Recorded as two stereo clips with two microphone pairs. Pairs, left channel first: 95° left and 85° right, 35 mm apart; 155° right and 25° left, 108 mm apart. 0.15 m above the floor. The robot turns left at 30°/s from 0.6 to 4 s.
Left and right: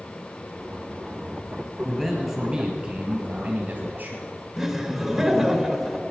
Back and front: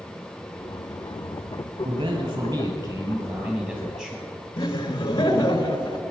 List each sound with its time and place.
1.8 s a man speaking: 5° left, 3.5 m; by 4.3 s 60° right, 3.5 m
4.6 s laughter: 170° right, 1.3 m